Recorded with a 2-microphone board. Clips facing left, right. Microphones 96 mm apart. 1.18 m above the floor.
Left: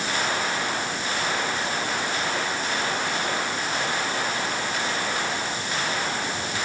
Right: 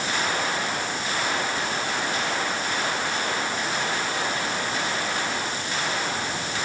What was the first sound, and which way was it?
Only background noise.